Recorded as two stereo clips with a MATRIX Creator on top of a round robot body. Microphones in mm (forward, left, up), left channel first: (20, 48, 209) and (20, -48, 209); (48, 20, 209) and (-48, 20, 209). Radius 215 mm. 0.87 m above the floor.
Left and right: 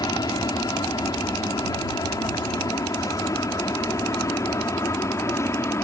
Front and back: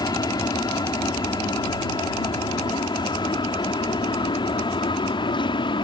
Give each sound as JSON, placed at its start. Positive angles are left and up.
{"t": 0.0, "sound": "an aircraft", "azimuth_deg": 45}